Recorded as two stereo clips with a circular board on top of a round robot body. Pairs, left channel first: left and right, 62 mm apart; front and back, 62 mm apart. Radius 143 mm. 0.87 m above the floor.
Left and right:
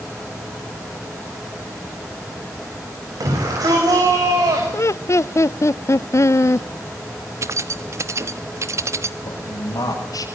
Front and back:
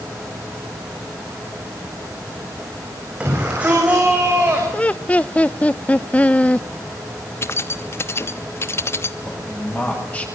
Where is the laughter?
65° left, 0.6 m.